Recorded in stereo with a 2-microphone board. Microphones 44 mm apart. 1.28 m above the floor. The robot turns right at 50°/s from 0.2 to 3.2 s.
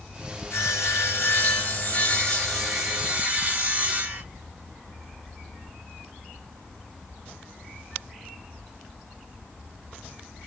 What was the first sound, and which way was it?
Sawing, 75° left.